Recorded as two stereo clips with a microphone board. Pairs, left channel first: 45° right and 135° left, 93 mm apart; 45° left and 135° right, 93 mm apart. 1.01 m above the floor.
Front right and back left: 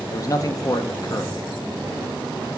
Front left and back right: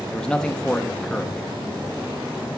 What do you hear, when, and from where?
0.1 s a man speaking: 35° right, 0.6 m